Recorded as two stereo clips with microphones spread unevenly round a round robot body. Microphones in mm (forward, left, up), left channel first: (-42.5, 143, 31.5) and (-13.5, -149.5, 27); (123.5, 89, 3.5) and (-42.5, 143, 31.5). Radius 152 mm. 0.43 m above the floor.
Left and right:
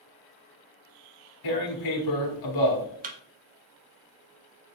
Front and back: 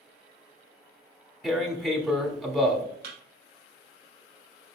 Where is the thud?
150° right, 0.6 m.